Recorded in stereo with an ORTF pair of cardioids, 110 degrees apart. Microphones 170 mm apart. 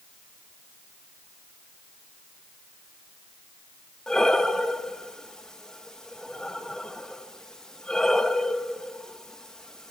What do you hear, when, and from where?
4.1 s breathing: 5° left, 1.8 m